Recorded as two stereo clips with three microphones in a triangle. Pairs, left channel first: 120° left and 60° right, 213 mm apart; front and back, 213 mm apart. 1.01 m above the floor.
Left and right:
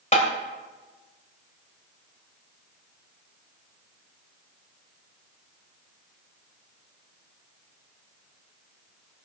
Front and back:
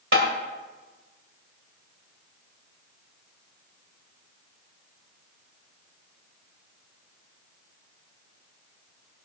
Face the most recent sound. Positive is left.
turn(degrees=175)